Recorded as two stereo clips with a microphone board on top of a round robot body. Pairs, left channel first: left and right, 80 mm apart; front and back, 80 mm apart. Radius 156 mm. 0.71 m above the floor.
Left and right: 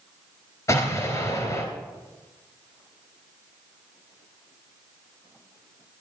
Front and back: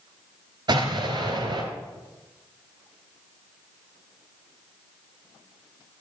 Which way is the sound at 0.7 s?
145° left.